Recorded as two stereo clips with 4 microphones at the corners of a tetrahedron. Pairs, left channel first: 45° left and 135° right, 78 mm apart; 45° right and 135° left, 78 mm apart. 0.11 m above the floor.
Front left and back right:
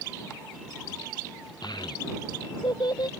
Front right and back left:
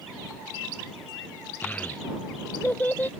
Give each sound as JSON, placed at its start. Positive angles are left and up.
{"t": 1.6, "sound": "a child speaking", "azimuth_deg": 25}